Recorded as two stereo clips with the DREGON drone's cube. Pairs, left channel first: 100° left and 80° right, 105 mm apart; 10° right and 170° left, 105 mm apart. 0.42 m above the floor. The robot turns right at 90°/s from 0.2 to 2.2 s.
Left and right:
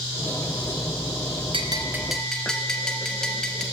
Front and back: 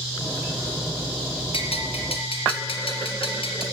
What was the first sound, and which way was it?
A bell, 45° right.